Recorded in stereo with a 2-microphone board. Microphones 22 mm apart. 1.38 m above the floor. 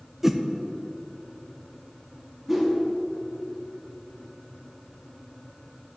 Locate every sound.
0.2 s a whoosh: 15° right (ahead or behind), 0.6 m
2.5 s a whoosh: 10° right (ahead or behind), 1.6 m